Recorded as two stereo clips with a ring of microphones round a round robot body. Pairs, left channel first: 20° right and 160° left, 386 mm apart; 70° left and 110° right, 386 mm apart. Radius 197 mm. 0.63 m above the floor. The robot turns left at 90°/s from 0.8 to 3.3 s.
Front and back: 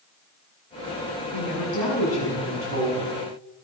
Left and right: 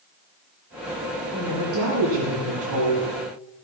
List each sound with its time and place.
1.3 s a woman speaking: 20° right, 7.5 m; by 3.1 s 175° right, 7.5 m